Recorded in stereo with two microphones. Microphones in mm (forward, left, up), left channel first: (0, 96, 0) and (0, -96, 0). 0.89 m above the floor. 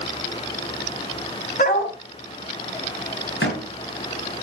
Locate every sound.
1.6 s a dog barking: 50° left (ahead or behind), 2.5 m
3.4 s a door slam: 80° left, 4 m